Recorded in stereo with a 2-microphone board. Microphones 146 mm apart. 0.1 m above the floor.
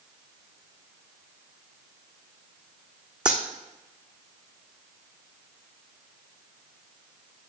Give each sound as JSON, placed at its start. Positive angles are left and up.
{"t": 3.2, "sound": "a dropped coin", "side_deg": -5, "distance_m": 1.1}